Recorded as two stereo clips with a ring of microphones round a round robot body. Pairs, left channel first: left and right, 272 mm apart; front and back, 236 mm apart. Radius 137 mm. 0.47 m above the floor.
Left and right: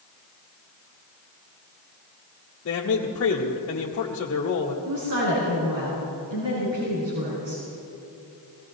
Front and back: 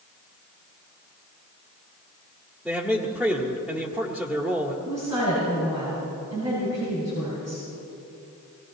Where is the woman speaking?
105° right, 5.5 m.